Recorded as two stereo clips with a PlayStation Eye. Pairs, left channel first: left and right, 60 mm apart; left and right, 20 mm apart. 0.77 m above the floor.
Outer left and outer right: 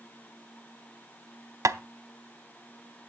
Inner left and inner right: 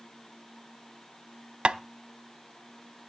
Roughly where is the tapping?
Right.